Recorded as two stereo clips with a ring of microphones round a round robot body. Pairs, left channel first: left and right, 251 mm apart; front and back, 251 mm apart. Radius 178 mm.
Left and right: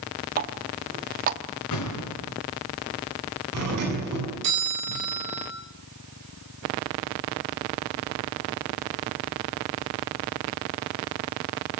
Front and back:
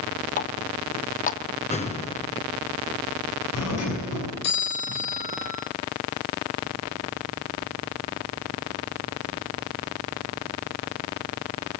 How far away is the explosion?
About 4.5 m.